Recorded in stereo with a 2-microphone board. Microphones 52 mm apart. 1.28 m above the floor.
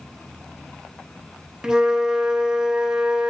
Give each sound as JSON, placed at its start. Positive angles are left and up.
{"t": 1.6, "sound": "a flute", "side_deg": -10, "distance_m": 0.6}